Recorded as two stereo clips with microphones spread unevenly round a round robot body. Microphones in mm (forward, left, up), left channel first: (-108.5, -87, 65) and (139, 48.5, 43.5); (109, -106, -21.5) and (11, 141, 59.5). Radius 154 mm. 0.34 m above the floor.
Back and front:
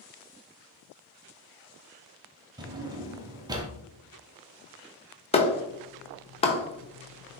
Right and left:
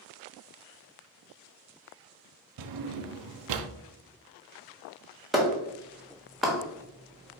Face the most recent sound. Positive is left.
turn(degrees=-110)